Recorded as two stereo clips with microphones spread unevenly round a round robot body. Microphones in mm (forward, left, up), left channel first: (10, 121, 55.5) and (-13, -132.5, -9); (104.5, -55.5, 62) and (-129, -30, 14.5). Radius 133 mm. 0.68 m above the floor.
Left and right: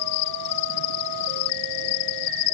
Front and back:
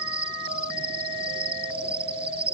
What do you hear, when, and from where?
0.0 s an insect: 105° left